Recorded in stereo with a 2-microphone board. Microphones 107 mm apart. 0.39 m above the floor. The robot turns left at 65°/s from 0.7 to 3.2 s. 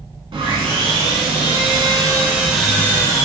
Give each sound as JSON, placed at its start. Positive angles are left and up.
{"t": 0.3, "sound": "sawing", "azimuth_deg": -55, "distance_m": 0.7}